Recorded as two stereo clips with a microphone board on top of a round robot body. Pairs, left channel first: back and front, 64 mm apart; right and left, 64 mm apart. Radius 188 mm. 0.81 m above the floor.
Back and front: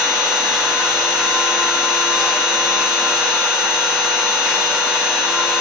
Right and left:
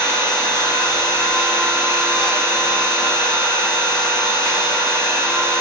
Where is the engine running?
85° right, 1.9 m.